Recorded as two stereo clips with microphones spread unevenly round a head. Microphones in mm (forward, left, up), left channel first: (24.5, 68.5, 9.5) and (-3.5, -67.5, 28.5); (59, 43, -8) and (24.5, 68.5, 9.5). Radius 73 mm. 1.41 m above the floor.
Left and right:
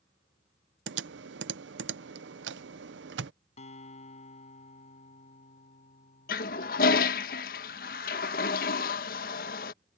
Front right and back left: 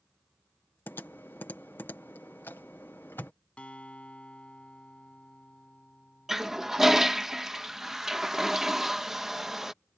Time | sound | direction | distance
0.9 | typing on a keyboard | 105° right | ?
3.6 | a guitar | 30° left | ?
6.3 | a toilet flushing | 90° left | ?